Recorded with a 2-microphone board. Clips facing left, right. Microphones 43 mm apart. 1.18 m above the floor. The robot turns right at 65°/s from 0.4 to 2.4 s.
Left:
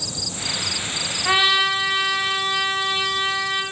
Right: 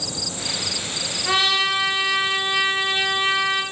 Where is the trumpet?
145° left, 1.3 m; by 3.6 s 140° right, 1.3 m.